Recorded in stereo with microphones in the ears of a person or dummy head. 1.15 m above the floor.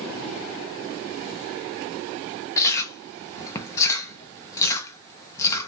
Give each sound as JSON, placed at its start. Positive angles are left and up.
{"t": 2.6, "sound": "chewing", "side_deg": 15, "distance_m": 0.7}